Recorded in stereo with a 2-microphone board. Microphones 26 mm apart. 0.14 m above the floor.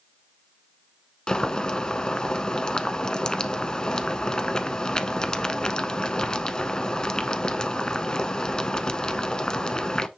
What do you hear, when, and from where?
1.3 s boiling: 30° left (ahead or behind), 0.9 m